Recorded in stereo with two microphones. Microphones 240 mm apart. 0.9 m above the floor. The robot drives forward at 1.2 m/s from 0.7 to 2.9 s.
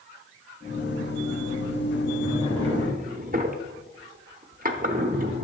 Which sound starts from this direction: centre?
A drawer, at 2.2 s.